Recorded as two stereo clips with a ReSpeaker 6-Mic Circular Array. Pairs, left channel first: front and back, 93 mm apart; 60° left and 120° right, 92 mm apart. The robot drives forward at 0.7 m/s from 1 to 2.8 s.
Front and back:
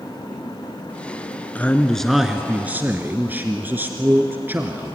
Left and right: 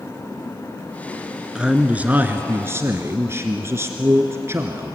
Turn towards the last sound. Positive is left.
turn(degrees=-135)